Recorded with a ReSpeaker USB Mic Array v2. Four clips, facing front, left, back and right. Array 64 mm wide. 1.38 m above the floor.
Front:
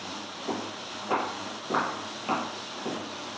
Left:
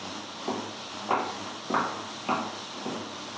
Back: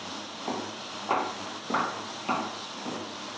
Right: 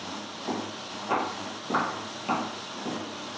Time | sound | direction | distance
0.5 | footsteps | 165° left | 1.7 m